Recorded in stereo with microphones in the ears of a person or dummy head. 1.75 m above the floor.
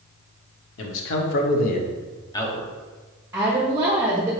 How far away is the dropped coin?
No dropped coin in this recording.